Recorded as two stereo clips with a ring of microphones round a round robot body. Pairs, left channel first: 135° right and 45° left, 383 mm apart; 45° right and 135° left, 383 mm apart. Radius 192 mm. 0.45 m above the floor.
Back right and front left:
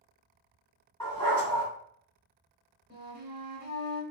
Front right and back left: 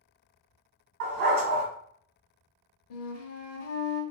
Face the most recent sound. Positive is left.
turn(degrees=-15)